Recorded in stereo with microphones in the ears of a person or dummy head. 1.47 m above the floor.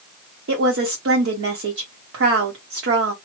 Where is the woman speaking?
65° right (ahead or behind), 1.5 m.